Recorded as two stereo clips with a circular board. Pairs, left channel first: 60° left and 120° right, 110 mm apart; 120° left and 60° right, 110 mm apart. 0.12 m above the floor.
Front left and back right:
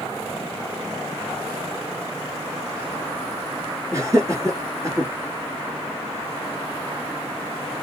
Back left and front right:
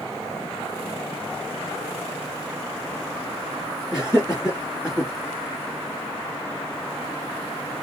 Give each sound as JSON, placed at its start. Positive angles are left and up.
{"t": 3.9, "sound": "laughter", "azimuth_deg": -130, "distance_m": 1.2}